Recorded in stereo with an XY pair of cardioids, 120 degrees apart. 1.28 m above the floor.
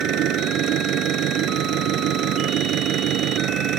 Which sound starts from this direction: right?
An engine running, at 0.0 s.